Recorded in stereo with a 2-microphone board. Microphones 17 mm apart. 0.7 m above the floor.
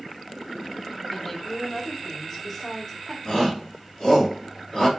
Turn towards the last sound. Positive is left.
turn(degrees=40)  # may be behind; listen again after turning